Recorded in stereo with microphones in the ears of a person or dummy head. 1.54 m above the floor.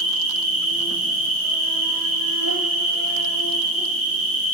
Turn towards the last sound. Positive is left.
turn(degrees=-65)  # may be behind; listen again after turning